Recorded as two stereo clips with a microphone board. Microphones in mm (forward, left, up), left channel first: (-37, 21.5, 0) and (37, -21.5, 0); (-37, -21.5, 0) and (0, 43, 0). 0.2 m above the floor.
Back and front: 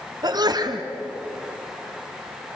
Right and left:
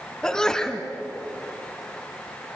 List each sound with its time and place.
0.2 s a sneeze: 40° right, 1.9 m